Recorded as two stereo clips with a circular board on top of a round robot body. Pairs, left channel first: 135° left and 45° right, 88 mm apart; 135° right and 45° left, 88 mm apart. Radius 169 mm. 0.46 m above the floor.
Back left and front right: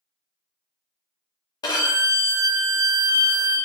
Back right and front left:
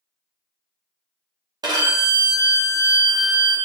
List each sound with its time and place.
1.6 s a violin: 90° left, 0.9 m